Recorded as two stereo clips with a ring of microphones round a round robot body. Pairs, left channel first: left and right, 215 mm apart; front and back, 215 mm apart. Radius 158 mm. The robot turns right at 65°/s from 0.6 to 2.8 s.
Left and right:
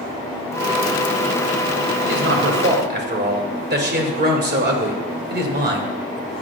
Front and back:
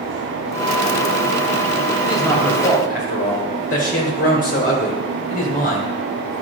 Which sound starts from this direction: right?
A man speaking, at 2.0 s.